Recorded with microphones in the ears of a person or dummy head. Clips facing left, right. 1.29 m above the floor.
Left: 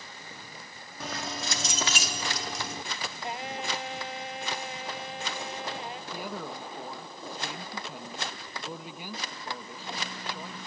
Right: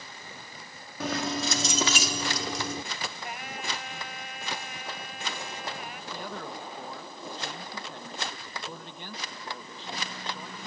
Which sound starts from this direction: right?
Keys jangling, at 1.0 s.